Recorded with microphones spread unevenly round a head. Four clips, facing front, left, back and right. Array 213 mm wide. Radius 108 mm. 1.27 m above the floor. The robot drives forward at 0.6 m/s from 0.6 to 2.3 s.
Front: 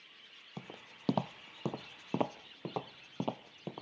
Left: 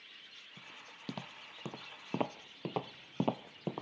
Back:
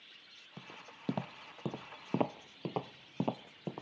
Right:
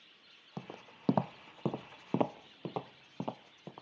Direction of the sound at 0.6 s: 60° right.